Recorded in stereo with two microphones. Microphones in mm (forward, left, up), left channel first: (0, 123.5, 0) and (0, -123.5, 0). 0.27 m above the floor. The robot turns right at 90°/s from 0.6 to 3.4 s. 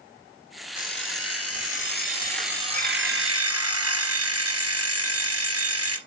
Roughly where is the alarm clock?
Ahead left.